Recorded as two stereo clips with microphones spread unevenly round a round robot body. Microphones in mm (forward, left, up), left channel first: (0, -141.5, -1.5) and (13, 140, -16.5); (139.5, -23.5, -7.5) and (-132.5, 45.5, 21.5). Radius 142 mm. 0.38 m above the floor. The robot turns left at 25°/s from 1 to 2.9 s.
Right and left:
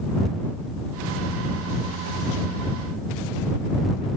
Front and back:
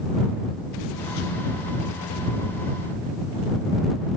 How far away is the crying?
I don't hear crying.